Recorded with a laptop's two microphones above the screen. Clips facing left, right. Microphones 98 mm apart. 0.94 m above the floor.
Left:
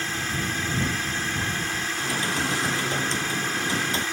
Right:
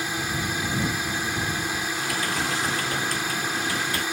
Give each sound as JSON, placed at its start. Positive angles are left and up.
{"t": 0.0, "sound": "a drone", "side_deg": -15}
{"t": 2.0, "sound": "typing on a keyboard", "side_deg": 20}